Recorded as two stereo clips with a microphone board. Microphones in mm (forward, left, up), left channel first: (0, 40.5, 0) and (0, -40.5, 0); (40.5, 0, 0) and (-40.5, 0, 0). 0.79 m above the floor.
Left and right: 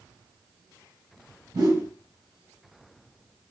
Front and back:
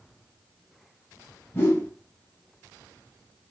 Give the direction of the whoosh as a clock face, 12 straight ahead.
2 o'clock.